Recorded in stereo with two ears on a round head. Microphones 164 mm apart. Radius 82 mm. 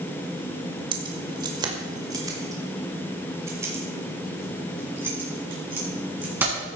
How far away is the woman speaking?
I don't hear a woman speaking.